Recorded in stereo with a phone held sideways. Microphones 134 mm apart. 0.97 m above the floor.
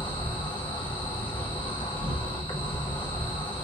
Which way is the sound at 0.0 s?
40° left (ahead or behind).